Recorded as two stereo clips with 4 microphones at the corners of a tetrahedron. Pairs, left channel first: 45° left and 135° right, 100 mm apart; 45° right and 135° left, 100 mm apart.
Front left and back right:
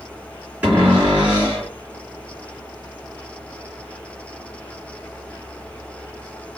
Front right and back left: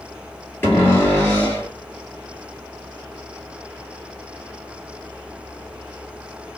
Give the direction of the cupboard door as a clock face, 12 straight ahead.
3 o'clock.